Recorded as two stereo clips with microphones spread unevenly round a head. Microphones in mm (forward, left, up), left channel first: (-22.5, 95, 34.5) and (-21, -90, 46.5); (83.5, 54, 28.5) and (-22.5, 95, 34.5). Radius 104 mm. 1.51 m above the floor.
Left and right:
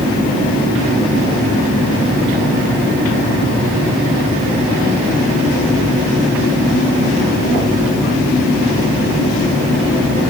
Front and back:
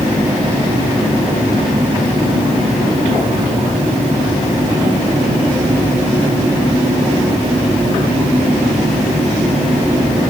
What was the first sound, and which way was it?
Only background noise.